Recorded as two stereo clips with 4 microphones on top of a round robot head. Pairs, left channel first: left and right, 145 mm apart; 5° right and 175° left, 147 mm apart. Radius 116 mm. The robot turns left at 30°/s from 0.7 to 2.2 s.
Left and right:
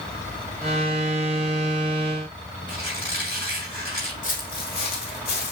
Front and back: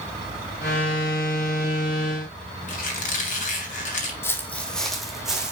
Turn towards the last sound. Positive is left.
turn(degrees=90)